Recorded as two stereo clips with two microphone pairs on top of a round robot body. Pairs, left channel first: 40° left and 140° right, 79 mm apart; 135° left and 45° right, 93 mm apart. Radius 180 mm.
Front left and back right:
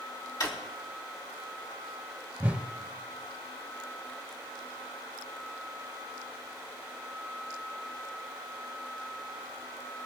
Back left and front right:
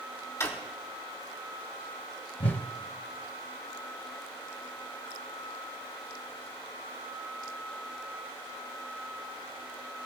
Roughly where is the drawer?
Left.